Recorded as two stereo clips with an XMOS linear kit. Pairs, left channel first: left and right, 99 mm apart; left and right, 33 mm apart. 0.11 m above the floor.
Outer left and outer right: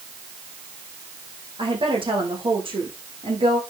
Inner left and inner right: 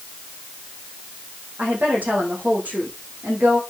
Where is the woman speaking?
60° right (ahead or behind), 5 m.